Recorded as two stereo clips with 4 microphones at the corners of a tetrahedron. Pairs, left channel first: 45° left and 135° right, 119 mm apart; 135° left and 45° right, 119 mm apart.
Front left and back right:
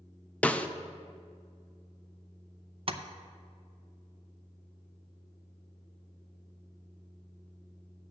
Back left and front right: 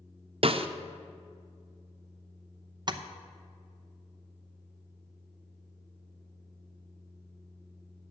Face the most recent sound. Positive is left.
turn(degrees=-95)